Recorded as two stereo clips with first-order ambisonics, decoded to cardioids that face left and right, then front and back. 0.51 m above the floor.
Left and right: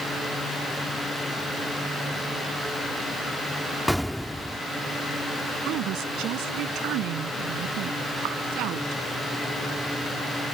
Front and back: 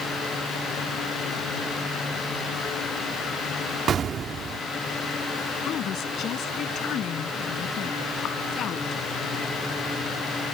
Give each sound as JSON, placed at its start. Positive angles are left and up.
{"t": 3.9, "sound": "an explosion", "azimuth_deg": 175}
{"t": 5.6, "sound": "a woman speaking", "azimuth_deg": -50}